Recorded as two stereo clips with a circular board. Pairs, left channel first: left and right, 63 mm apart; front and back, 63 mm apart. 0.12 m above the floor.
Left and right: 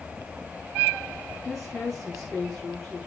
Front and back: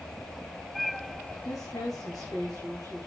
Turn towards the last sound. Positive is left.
turn(degrees=0)